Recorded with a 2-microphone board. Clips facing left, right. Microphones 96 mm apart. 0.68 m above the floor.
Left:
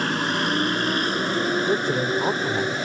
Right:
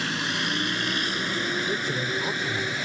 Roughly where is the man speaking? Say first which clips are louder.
Left 6 dB; left.